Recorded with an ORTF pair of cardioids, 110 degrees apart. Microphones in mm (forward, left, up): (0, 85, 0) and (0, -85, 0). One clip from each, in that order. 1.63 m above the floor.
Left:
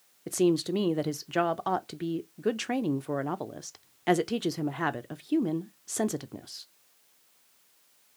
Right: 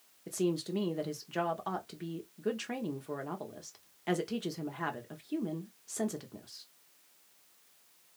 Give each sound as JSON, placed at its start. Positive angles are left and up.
{"t": 0.3, "sound": "a woman speaking", "azimuth_deg": 35, "distance_m": 0.7}